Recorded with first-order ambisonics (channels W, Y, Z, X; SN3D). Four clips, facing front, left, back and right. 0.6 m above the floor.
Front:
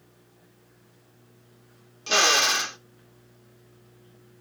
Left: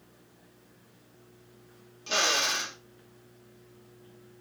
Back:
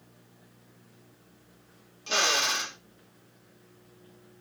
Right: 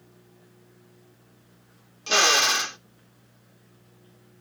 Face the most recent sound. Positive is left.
turn(degrees=-50)